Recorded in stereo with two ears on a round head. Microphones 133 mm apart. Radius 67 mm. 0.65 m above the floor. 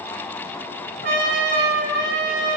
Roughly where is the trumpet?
Right.